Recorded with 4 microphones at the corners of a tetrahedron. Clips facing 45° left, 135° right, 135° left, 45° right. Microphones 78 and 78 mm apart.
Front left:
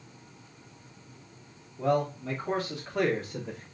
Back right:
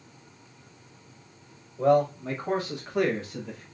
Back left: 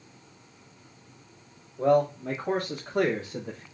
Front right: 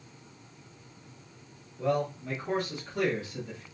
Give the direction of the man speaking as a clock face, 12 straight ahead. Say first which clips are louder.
Back right 6 dB, back left 7 dB; 6 o'clock.